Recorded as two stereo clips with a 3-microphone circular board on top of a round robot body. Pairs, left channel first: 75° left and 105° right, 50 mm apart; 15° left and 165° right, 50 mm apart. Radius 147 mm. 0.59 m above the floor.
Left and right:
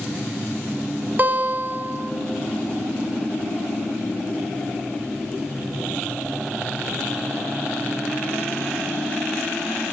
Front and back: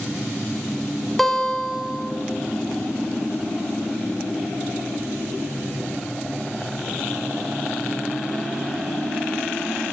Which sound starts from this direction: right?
A guitar, at 1.2 s.